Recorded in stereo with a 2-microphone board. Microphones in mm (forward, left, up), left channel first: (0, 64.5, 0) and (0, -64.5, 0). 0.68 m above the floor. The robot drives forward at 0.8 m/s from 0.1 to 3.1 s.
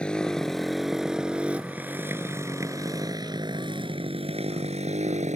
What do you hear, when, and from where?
0.0 s a motorcycle: 5° left (ahead or behind); by 5.3 s 70° right (ahead or behind)